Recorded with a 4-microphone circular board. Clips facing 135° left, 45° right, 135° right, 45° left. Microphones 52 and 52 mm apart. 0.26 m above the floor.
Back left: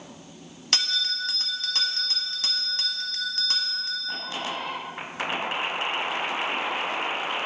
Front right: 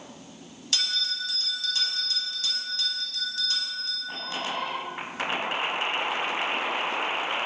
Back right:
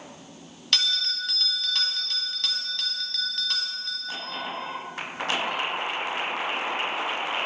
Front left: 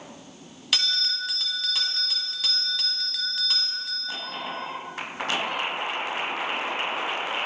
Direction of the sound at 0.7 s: 130° left.